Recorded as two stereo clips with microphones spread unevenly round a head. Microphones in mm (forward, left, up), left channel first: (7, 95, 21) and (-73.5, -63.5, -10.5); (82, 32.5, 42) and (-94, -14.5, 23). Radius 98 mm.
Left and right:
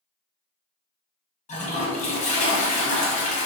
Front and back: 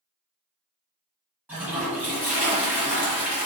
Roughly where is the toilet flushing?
Left.